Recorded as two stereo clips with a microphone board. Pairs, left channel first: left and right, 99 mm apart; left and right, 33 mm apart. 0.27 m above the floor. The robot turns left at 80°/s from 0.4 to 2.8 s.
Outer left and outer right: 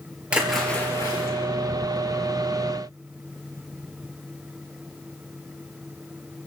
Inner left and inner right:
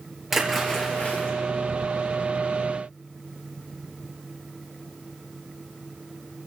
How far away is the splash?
About 3.5 m.